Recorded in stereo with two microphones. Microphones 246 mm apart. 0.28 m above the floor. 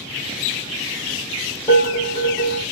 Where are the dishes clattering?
15° left (ahead or behind), 1.3 m.